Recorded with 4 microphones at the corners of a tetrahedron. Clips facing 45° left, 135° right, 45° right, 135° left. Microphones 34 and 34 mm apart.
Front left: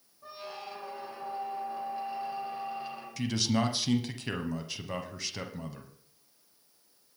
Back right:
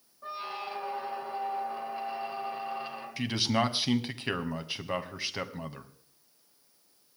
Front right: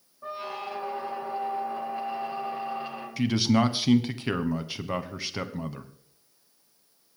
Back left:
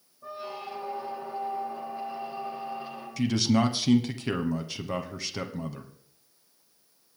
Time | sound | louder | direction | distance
0.2 | a squeak | back right 5 dB, front right 3 dB | 70° right | 2 m
3.2 | a man speaking | back right 1 dB, front right 1 dB | 95° right | 1.3 m